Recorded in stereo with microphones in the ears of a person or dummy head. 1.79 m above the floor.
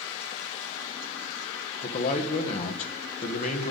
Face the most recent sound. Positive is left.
turn(degrees=40)  # may be behind; listen again after turning